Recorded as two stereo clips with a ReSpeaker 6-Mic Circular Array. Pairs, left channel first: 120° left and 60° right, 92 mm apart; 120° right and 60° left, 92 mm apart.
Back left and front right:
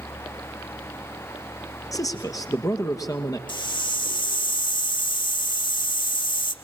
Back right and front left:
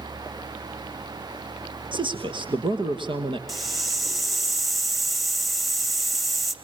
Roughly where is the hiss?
Behind left.